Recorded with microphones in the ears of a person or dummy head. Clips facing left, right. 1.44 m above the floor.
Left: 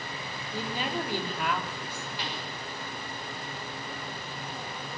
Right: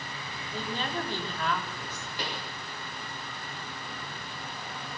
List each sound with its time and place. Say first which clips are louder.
0.5 s a woman speaking: left 1 dB; 10° left (ahead or behind), 3.5 m
2.2 s a pop: right 3 dB; 40° right (ahead or behind), 6.5 m